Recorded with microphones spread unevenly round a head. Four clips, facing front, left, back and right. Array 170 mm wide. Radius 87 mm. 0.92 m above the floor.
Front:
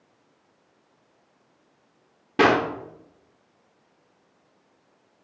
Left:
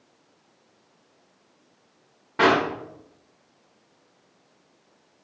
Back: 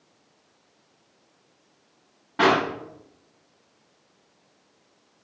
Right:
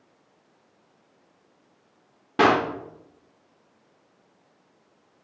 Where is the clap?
30° right, 1.8 m.